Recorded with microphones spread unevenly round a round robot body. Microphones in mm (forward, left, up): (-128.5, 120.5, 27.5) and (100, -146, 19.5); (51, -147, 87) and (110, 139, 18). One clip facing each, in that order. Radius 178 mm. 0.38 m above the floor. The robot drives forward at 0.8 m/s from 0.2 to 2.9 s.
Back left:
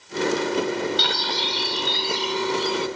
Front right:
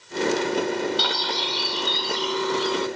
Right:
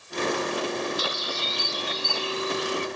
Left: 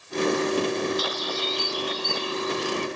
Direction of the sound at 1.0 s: 170° right.